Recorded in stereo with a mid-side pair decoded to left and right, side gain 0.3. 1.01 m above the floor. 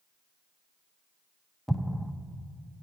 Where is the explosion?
Straight ahead, 0.7 m.